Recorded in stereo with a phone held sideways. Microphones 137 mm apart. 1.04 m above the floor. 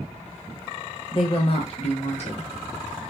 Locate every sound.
1.1 s a woman speaking: 40° left (ahead or behind), 1.0 m; by 2.5 s 55° left (ahead or behind), 1.3 m